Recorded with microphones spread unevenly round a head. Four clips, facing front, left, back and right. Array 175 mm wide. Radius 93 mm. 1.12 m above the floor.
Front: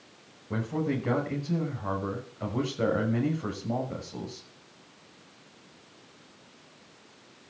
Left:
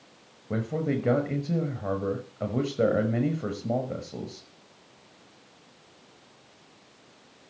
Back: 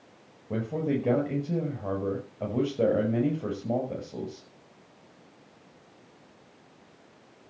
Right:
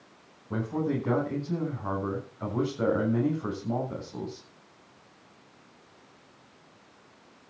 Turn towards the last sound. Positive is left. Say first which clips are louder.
# left 1 dB, back 1 dB
turn(degrees=125)